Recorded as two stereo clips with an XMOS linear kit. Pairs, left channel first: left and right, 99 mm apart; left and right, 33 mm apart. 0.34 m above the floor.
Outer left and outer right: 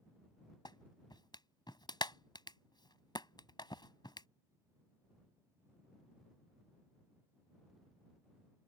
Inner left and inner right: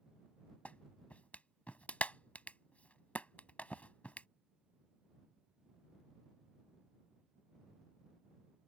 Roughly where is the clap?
Left.